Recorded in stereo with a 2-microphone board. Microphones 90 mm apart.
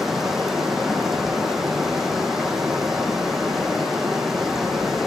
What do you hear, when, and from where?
0.0 s running water: 5° right (ahead or behind), 0.9 m